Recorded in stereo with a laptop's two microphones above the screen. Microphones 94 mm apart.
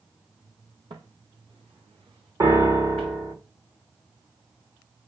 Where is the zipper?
I don't hear a zipper.